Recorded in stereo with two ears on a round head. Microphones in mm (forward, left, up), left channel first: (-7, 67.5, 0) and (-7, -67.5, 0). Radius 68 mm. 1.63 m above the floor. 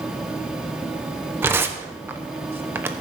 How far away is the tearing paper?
About 0.8 m.